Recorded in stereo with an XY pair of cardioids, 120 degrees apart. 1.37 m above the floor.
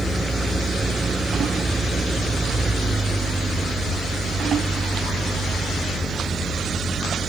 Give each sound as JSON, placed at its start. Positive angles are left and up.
{"t": 0.0, "sound": "an engine running", "azimuth_deg": -20}